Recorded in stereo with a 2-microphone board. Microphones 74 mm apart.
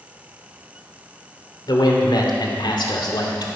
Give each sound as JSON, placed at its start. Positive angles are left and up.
{"t": 1.7, "sound": "a man speaking", "side_deg": 75, "distance_m": 3.0}